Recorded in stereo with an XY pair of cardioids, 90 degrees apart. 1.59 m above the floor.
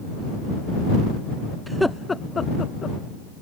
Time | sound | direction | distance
1.7 | laughter | 15° right | ?